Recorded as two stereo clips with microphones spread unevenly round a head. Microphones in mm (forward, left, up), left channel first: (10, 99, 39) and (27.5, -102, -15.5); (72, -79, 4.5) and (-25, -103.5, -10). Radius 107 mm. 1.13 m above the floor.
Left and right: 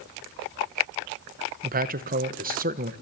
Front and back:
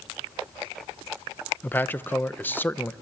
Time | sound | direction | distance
1.6 | a man speaking | 60° right | 1.0 m